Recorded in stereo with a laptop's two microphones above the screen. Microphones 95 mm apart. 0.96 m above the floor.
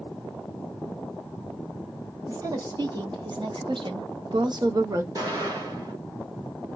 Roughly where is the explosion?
Right.